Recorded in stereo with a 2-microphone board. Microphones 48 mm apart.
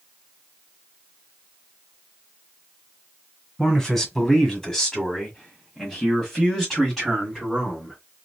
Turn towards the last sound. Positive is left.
turn(degrees=5)  # may be behind; listen again after turning